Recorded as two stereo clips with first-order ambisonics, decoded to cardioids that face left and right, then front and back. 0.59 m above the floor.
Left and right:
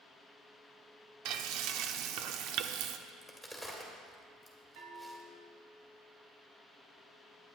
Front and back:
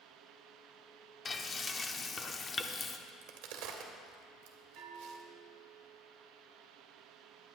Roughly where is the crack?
Behind.